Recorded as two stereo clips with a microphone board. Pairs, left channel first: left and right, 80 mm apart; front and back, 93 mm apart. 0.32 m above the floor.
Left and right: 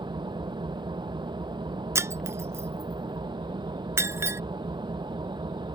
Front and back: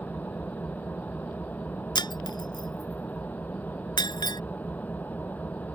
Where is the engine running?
70° right.